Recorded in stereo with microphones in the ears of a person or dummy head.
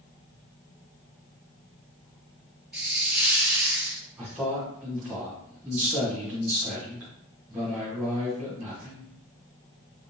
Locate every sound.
2.7 s a hiss: 5° right (ahead or behind), 0.7 m
4.2 s a man speaking: 10° right (ahead or behind), 1.5 m